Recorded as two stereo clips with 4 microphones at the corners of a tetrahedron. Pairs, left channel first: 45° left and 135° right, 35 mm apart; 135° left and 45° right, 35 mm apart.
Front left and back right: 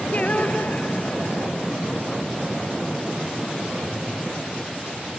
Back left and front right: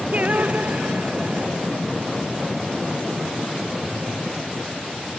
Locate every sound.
0.1 s singing: 5° right